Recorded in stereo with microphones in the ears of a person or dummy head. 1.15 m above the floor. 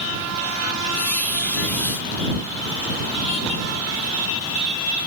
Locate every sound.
0.9 s a squeak: 10° left (ahead or behind)